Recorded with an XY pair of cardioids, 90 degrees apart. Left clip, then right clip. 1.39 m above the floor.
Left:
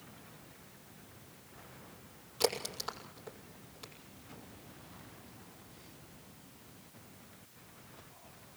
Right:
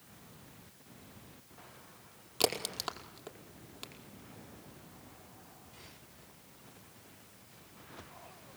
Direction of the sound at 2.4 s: 70° right.